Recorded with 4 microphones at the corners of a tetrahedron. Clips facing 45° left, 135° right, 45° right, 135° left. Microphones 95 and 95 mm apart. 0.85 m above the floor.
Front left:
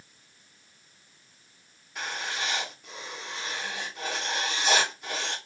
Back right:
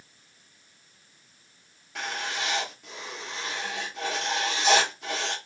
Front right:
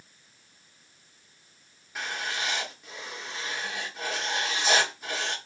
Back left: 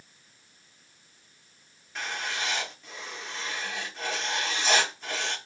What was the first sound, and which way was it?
Writing, 125° right.